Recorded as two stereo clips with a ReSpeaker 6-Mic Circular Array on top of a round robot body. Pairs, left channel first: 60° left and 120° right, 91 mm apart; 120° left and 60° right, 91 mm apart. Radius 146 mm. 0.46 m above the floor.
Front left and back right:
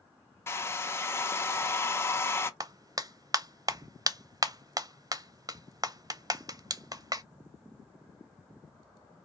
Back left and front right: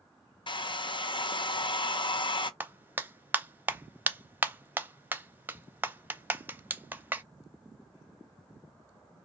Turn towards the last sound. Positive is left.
turn(degrees=-120)